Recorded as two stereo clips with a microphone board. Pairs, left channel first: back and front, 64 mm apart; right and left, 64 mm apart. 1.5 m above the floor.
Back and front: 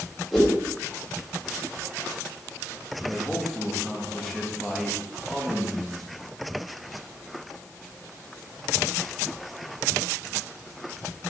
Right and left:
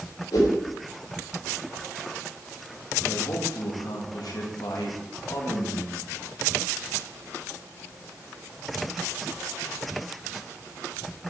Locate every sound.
0.3 s a whoosh: 95° right, 3.5 m
3.0 s a man speaking: 95° right, 1.9 m